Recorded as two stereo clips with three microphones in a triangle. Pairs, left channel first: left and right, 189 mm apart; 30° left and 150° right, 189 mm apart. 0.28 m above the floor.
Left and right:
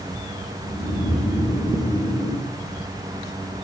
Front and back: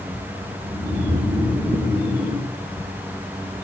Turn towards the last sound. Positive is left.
turn(degrees=125)